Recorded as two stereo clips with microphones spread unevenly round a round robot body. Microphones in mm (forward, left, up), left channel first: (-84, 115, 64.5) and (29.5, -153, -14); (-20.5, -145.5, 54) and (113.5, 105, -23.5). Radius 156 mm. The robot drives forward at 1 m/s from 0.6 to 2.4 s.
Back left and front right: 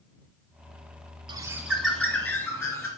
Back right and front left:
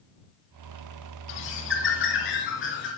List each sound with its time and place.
1.3 s a bird: 150° right, 0.8 m; by 2.9 s 170° right, 1.8 m